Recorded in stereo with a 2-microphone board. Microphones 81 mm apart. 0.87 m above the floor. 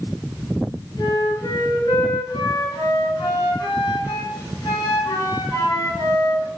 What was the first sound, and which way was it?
A flute, 70° left (ahead or behind).